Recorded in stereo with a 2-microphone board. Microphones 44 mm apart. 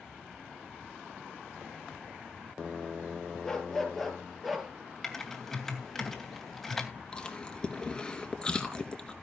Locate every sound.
3.4 s a dog barking: 10° left (ahead or behind), 3 m; by 4.7 s 10° right (ahead or behind), 3 m
5.0 s typing on a keyboard: 5° left (ahead or behind), 2.5 m
7.1 s chewing: 15° left (ahead or behind), 2.5 m